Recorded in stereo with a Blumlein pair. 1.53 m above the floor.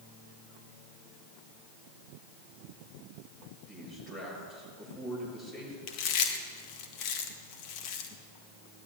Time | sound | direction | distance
3.7 | a man speaking | 20° left | 8 m
5.9 | chewing | 40° left | 1.8 m